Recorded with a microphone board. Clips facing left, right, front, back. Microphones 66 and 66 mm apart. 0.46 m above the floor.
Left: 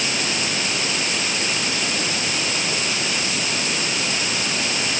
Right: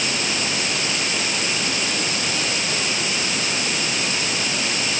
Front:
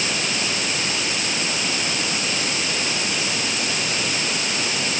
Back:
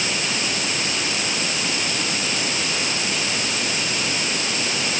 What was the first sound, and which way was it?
Only background noise.